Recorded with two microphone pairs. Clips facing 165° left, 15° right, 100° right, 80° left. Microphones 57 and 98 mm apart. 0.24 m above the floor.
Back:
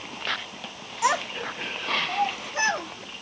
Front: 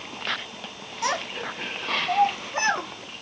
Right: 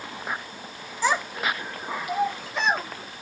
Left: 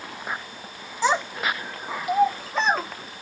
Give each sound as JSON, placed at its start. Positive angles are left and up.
{"t": 1.0, "sound": "a child speaking", "azimuth_deg": 105, "distance_m": 1.1}